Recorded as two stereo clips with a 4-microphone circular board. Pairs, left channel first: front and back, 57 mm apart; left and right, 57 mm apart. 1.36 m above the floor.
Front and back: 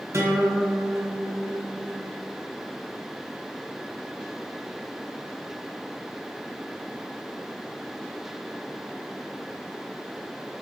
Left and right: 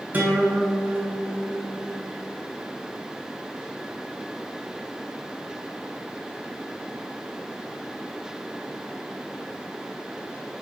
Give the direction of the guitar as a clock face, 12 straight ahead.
5 o'clock.